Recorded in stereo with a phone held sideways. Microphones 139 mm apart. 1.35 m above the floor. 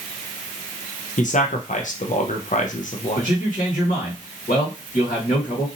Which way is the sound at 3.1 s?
85° left.